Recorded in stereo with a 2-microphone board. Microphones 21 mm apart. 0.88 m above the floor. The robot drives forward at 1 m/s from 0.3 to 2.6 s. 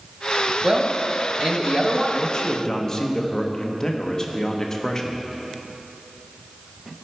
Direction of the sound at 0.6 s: 40° right (ahead or behind).